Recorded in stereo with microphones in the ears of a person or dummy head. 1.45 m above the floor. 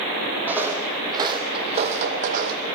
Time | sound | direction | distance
0.5 | footsteps | 10° right (ahead or behind) | 3.5 m